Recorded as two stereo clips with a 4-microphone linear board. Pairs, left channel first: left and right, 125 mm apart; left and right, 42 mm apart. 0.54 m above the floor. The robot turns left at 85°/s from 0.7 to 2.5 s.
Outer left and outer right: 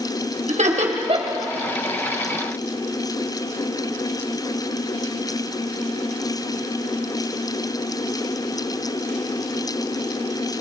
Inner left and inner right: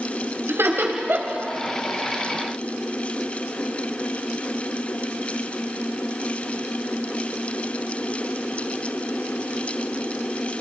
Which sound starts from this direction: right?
Laughter, at 0.5 s.